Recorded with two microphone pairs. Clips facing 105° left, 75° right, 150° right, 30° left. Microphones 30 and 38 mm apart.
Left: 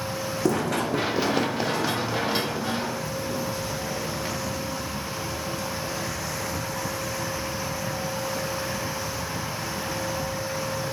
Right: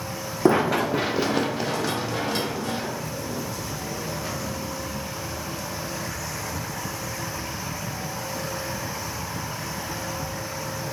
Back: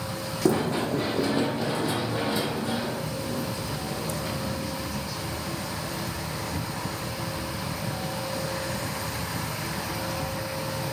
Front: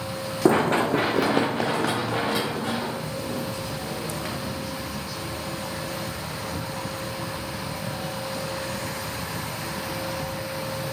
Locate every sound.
0.5 s running footsteps: 25° right, 0.6 m; by 5.0 s 40° left, 6 m